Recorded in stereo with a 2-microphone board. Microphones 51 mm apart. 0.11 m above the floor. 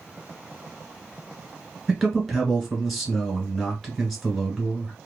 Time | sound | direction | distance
1.9 | a man speaking | centre (ahead or behind) | 1.4 m